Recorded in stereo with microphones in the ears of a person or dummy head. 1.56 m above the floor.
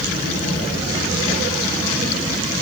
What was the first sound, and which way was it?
Only background noise.